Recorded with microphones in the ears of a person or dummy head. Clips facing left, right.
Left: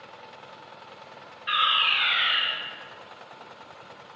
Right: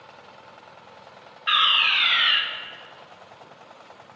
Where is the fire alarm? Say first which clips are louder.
Right 2 dB; 55° right (ahead or behind), 3 m.